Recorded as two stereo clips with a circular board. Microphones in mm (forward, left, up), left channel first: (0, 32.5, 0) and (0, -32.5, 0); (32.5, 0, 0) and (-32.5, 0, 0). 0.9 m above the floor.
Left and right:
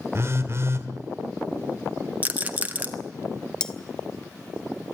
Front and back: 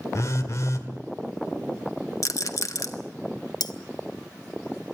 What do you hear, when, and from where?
0.1 s a phone buzzing: 40° right, 1.9 m
2.2 s a rattle: 25° right, 1.5 m
3.6 s cutlery clinking: 10° left, 1.0 m